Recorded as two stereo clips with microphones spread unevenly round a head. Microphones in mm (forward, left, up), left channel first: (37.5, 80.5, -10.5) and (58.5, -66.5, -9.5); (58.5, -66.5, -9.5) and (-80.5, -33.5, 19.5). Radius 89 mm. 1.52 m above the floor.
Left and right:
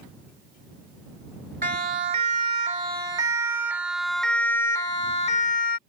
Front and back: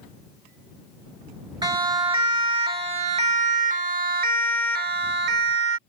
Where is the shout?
No shout in this recording.